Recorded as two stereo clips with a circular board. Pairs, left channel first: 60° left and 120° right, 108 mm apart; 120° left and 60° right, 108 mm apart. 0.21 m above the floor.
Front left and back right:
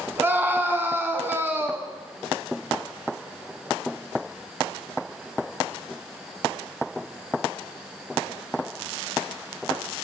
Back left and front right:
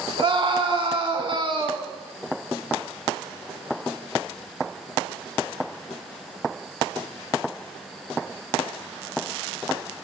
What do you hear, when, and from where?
0.2 s a scream: 55° right, 2 m